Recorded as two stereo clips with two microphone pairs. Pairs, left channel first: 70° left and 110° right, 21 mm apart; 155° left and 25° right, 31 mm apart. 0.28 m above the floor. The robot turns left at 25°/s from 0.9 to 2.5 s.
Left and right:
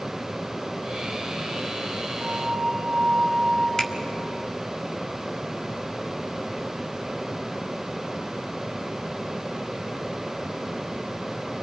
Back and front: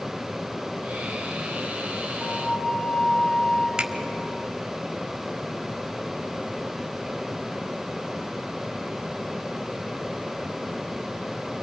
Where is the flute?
170° right, 6.5 m; by 3.7 s 175° right, 6.5 m.